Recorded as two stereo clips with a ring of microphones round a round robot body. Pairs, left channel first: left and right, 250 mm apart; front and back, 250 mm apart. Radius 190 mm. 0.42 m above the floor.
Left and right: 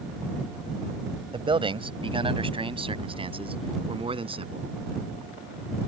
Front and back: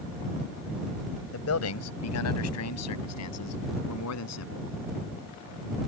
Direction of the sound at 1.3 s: 20° right.